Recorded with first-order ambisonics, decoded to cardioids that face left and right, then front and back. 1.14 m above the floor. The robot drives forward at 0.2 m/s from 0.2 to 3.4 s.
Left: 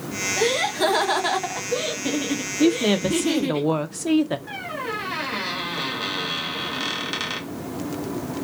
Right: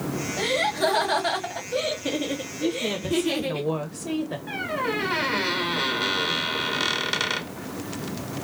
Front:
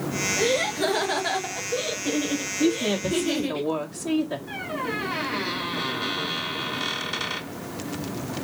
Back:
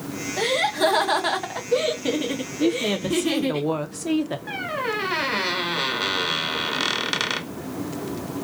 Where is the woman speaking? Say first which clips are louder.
Left 8 dB, back 2 dB; 95° left, 0.5 m; by 4.4 s 115° left, 0.6 m.